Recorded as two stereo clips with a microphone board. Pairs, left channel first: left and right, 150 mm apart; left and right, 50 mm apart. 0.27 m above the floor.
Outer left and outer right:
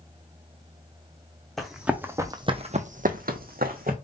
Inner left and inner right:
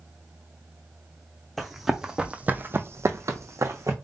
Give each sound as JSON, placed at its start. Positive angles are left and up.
{"t": 1.6, "sound": "running footsteps", "side_deg": 5, "distance_m": 1.0}